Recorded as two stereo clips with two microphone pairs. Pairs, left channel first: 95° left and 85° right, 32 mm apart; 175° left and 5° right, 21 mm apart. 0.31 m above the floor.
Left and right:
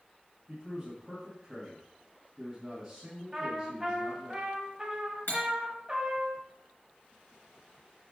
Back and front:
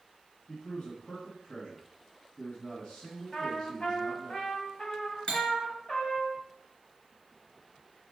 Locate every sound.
0.5 s a man speaking: 155° right, 2 m
3.3 s a trumpet: 160° right, 1.8 m
5.3 s cutlery clinking: 125° left, 2 m